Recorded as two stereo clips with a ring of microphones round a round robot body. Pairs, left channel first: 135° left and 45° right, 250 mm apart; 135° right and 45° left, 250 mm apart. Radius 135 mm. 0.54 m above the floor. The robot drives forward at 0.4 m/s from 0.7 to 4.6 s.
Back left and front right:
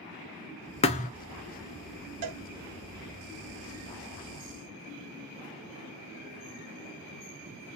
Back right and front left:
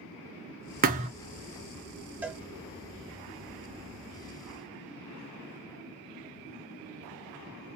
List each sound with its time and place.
0.8 s a thud: 80° left, 0.5 m; by 1.1 s 100° left, 0.5 m
2.2 s a cowbell: 40° right, 0.7 m; by 2.4 s 45° right, 0.6 m